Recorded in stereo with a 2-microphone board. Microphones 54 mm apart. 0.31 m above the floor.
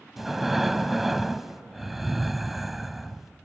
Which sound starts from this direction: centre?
Breathing, at 0.2 s.